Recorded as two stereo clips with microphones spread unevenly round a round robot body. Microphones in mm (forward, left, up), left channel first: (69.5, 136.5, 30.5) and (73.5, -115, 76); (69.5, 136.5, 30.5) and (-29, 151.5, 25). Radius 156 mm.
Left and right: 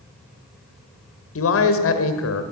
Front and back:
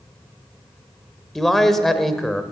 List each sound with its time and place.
1.4 s a man speaking: 80° left, 1.6 m